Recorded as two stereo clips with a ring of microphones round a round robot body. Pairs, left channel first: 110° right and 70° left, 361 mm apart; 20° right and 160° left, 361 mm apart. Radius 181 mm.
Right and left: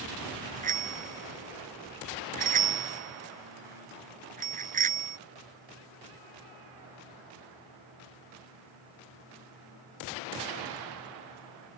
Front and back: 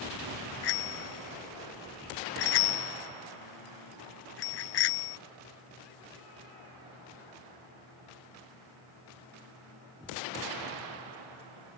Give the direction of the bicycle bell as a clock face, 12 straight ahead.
12 o'clock.